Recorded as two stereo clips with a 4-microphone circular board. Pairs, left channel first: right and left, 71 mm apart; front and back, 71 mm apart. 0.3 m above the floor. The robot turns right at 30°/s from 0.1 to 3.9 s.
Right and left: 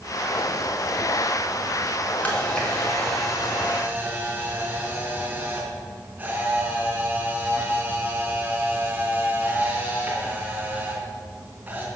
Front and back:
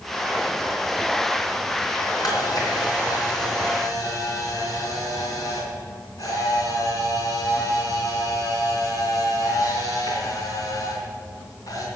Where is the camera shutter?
25° right, 3.5 m; by 11.9 s 25° left, 3.5 m.